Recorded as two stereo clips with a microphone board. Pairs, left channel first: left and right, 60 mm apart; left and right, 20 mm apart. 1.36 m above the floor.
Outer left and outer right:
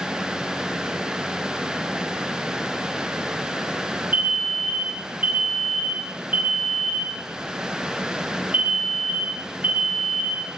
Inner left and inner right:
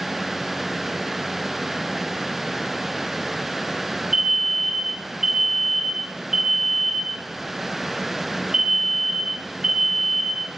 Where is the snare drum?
I don't hear a snare drum.